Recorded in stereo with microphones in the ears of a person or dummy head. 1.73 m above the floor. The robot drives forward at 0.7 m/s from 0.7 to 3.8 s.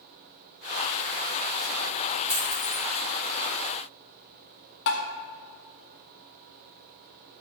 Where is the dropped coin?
5° right (ahead or behind), 3 m.